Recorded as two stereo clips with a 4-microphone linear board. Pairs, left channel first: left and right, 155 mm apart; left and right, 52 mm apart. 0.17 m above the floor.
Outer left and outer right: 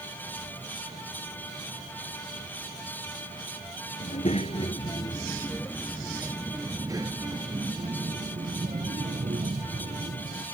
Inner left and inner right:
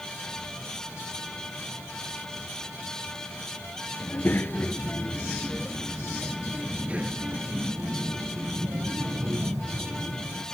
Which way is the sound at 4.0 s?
50° left (ahead or behind).